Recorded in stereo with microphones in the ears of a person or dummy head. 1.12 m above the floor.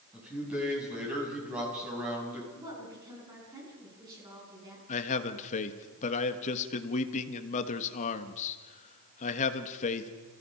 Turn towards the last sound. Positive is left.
turn(degrees=40)  # may be behind; listen again after turning